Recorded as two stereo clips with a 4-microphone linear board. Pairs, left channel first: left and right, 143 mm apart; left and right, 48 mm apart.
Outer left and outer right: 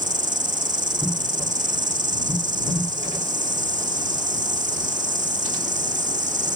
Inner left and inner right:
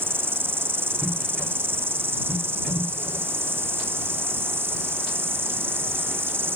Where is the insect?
60° right (ahead or behind).